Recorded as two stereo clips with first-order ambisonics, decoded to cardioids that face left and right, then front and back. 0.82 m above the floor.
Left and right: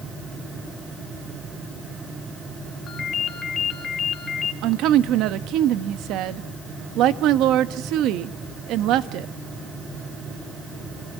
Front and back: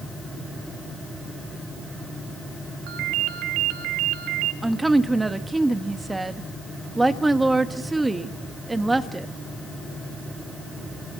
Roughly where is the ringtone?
Behind.